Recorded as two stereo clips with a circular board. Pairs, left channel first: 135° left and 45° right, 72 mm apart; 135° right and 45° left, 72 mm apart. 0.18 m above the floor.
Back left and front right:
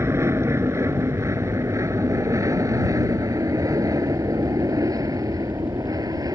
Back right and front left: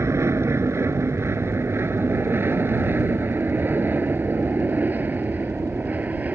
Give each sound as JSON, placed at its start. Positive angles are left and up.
{"t": 0.0, "sound": "an aircraft", "azimuth_deg": 0}